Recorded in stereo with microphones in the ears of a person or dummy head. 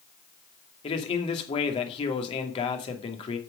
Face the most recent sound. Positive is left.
turn(degrees=30)  # may be behind; listen again after turning